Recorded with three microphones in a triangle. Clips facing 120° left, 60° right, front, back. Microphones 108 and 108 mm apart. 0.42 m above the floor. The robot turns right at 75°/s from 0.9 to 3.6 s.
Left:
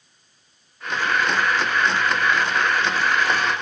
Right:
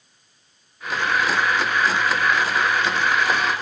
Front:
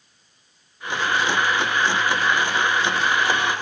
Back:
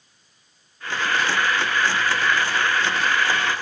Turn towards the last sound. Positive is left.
No sound to turn to.